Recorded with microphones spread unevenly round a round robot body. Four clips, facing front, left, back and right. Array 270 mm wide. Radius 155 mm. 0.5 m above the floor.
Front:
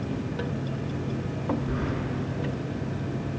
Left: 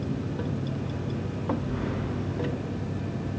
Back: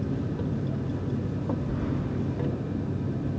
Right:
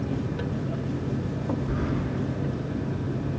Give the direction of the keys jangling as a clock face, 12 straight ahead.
2 o'clock.